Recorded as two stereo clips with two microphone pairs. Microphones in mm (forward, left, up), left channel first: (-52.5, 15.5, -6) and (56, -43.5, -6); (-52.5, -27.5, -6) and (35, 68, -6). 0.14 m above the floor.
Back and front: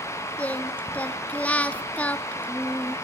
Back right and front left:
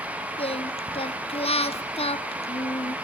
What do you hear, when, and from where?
0.4 s singing: 135° right, 0.7 m